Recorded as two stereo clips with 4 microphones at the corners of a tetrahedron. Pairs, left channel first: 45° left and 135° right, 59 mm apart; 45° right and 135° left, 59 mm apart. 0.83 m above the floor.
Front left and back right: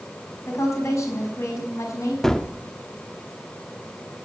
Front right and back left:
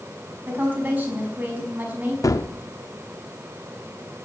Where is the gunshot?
35° right, 0.7 m.